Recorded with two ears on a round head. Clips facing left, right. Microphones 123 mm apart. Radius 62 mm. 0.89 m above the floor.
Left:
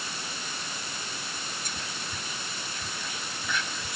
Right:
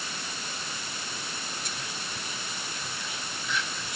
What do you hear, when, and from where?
1.6 s whispering: 40° left (ahead or behind), 1.5 m